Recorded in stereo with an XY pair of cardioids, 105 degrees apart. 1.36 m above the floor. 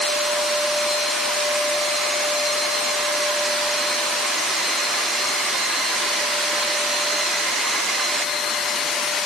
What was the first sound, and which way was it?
Only background noise.